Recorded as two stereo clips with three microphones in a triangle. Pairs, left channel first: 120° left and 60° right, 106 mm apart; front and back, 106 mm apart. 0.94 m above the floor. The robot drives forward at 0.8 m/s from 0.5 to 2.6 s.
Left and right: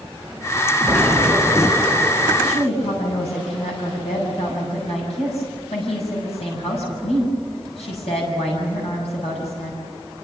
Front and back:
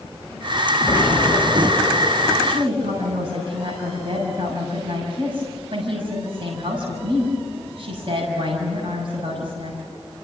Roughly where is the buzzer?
No buzzer in this recording.